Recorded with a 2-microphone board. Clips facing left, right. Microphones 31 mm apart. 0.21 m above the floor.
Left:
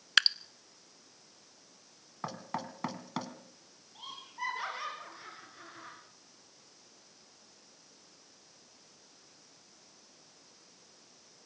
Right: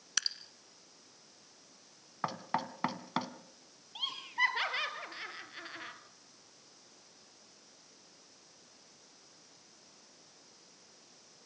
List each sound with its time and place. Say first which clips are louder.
0.2 s dripping: left 10 dB; 55° left (ahead or behind), 0.6 m
2.2 s knocking: right 3 dB; 20° right (ahead or behind), 1.7 m
4.0 s laughter: right 9 dB; 65° right (ahead or behind), 4.5 m